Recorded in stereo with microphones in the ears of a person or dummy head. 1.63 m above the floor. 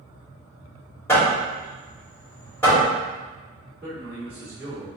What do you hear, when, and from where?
1.1 s hammering: 10° left (ahead or behind), 2.0 m
3.8 s a man speaking: 5° right (ahead or behind), 1.8 m